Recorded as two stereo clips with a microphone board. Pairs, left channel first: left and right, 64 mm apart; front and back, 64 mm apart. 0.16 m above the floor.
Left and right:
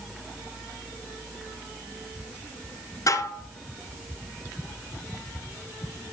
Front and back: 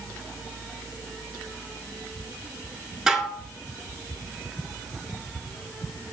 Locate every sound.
3.1 s dishes clattering: 100° left, 1.3 m